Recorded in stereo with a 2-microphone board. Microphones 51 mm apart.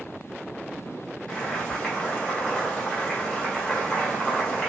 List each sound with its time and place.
1.3 s boiling: 20° left (ahead or behind), 1.5 m